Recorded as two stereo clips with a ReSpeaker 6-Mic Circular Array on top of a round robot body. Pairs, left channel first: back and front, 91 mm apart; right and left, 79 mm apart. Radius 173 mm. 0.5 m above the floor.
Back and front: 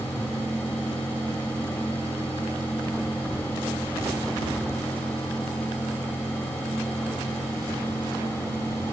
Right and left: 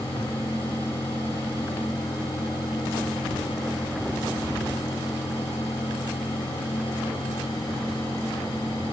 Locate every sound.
Only background noise.